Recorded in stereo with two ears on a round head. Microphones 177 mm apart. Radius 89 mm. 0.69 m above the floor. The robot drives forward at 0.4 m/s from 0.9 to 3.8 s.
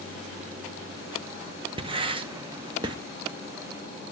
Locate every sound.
1.8 s writing: 25° right (ahead or behind), 0.9 m